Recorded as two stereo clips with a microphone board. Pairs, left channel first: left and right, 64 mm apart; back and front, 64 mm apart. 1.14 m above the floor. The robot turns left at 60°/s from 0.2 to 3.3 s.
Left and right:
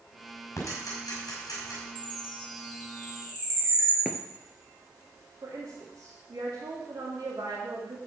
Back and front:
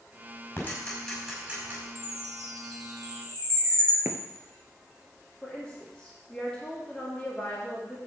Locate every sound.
0.6 s ticking: 125° left, 5 m; by 1.8 s 50° left, 5 m
1.9 s a chime: 25° left, 4.5 m; by 4.0 s 55° right, 4.5 m
4.0 s footsteps: 20° right, 1.3 m
5.4 s a woman speaking: 105° right, 2.5 m